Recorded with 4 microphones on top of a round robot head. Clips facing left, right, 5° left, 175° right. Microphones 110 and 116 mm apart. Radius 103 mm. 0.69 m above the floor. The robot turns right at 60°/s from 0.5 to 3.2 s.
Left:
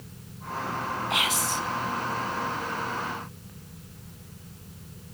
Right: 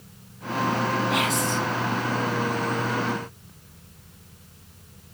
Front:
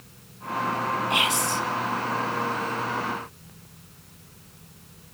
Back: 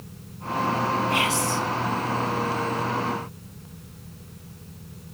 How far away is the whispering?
About 0.7 m.